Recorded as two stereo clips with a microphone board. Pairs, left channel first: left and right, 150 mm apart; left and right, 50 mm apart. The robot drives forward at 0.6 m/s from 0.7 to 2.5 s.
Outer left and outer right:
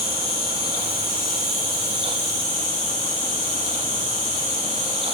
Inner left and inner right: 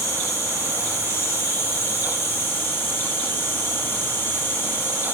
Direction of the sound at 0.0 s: 75° left (ahead or behind).